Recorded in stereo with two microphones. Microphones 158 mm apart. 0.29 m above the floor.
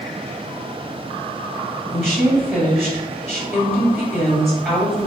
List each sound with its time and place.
1.9 s a woman speaking: centre (ahead or behind), 1.4 m